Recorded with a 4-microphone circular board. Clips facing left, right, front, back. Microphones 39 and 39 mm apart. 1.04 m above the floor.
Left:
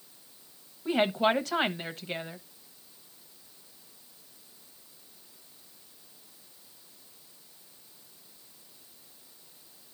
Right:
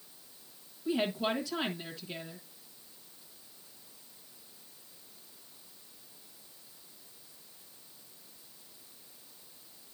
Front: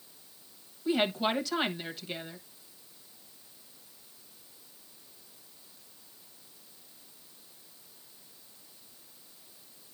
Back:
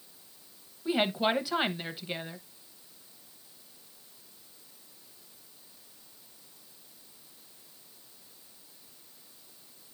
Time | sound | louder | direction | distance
0.8 | a woman speaking | left 6 dB, back 1 dB | 110° left | 1.2 m